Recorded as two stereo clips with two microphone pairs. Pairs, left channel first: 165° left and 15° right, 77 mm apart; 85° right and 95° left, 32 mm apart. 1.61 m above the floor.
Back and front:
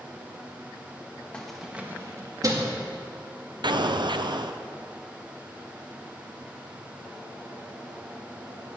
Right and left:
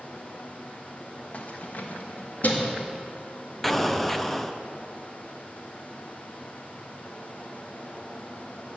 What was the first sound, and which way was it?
Keys jangling, 120° right.